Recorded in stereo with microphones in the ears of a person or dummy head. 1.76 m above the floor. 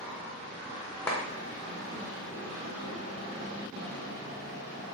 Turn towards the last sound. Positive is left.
turn(degrees=10)  # may be behind; listen again after turning